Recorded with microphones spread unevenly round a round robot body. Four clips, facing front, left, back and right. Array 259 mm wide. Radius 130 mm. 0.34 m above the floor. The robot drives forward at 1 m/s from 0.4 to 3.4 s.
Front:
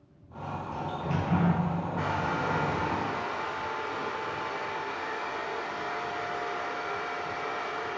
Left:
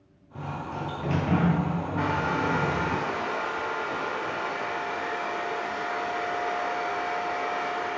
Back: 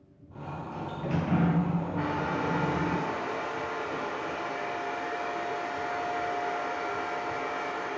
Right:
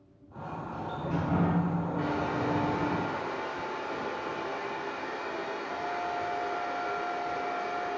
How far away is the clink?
No clink in this recording.